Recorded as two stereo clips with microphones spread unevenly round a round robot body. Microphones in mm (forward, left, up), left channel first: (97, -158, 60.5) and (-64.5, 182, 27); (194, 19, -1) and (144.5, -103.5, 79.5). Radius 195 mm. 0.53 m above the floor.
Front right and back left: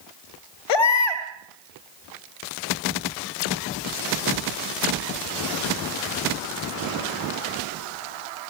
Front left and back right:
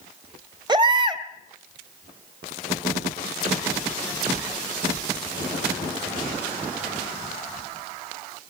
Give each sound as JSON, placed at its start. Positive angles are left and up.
{"t": 0.7, "sound": "a baby crying", "azimuth_deg": -45, "distance_m": 2.5}